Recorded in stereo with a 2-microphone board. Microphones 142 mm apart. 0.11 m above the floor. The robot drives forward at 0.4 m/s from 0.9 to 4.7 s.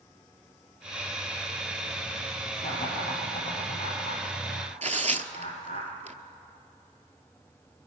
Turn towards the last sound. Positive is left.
turn(degrees=-55)  # may be behind; listen again after turning